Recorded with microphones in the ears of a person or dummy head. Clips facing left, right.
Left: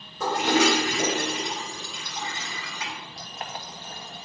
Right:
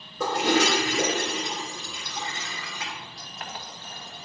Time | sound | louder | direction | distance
0.2 | a toilet flushing | left 1 dB | 60° right (ahead or behind) | 1.9 m
3.2 | boiling | left 2 dB | 25° left (ahead or behind) | 1.0 m